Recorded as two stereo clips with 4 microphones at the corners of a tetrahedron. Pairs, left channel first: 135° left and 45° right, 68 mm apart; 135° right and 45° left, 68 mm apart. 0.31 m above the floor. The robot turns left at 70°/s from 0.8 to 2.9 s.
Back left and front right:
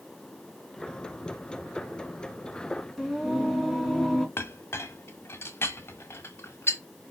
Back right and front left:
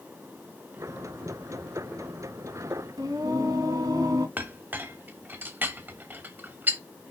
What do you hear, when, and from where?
3.0 s singing: 55° left, 3.5 m
4.4 s a clink: 100° left, 1.3 m